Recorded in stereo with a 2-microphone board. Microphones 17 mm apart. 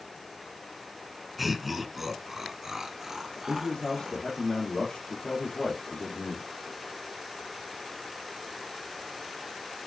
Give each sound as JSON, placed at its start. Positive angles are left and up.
{"t": 1.4, "sound": "laughter", "side_deg": -5, "distance_m": 1.2}
{"t": 3.5, "sound": "a man speaking", "side_deg": 65, "distance_m": 2.5}